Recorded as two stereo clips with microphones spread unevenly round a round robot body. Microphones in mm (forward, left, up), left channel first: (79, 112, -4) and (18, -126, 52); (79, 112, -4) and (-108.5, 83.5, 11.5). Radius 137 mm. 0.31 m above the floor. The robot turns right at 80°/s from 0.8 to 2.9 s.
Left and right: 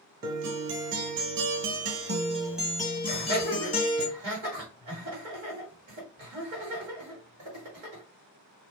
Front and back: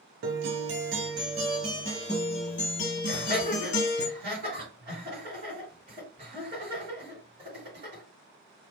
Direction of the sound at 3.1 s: 135° right.